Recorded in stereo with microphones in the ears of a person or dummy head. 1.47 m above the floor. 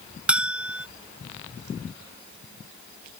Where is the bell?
Centre (ahead or behind).